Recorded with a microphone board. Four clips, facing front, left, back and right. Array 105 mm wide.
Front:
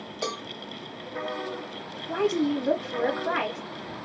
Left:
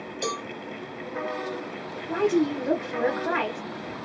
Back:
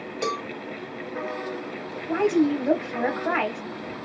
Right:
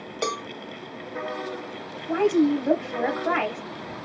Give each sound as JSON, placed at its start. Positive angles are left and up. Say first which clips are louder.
{"t": 0.2, "sound": "a cowbell", "louder": "right 3 dB, back 5 dB", "azimuth_deg": -105, "distance_m": 0.6}
{"t": 2.1, "sound": "a woman speaking", "louder": "right 3 dB, back 4 dB", "azimuth_deg": -150, "distance_m": 1.8}